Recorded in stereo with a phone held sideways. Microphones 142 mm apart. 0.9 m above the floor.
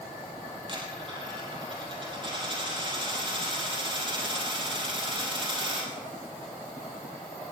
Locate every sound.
0.7 s a dropped coin: 35° right (ahead or behind), 4.5 m